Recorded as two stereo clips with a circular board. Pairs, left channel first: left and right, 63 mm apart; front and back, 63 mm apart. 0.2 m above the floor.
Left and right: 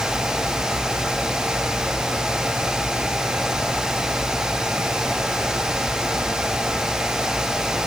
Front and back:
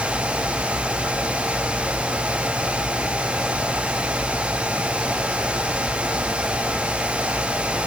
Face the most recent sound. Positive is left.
No sound to turn to.